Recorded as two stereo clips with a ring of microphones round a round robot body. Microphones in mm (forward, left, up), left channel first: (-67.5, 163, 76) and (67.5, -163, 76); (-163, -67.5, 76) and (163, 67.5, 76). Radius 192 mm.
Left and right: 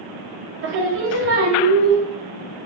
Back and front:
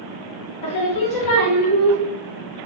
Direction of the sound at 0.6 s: 125° right.